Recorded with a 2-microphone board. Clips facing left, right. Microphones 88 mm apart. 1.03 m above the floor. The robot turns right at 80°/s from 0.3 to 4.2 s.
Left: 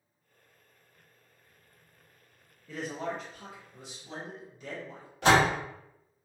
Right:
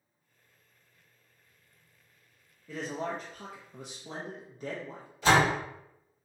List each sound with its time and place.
2.7 s a man speaking: 170° right, 0.5 m; by 5.1 s 50° right, 0.5 m
5.2 s a door slam: 75° left (ahead or behind), 1.1 m